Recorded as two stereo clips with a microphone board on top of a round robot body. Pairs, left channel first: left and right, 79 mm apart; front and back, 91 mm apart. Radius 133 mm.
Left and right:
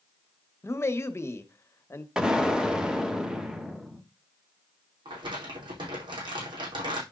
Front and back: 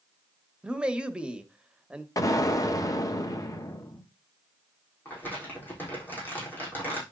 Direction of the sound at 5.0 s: 70° right.